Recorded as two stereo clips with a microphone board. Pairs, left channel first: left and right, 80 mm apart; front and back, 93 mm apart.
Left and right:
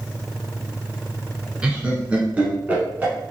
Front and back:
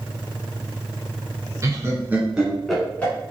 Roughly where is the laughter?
Behind.